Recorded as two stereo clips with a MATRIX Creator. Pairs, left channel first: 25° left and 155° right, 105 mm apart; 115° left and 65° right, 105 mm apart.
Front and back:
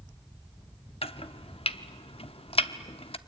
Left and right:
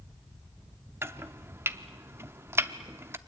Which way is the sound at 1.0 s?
Straight ahead.